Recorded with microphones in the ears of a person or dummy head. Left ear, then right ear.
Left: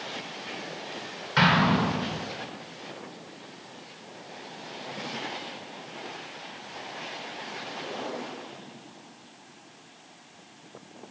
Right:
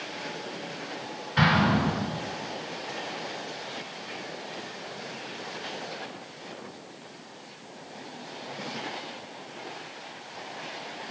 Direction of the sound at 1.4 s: 75° left (ahead or behind).